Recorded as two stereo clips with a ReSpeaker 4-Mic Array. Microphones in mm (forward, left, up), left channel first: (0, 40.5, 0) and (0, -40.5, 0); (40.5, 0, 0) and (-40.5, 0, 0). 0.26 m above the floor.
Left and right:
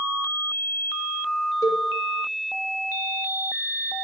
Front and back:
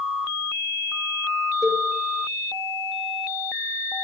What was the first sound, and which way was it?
A cowbell, 140° left.